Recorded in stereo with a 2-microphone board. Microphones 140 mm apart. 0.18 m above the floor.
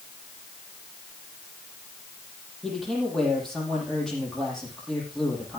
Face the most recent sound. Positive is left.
turn(degrees=0)  # may be behind; listen again after turning